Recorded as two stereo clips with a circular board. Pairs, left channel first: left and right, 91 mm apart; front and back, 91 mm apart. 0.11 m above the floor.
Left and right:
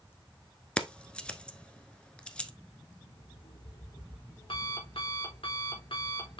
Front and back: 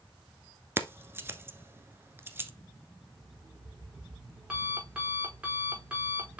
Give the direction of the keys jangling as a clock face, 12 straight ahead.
7 o'clock.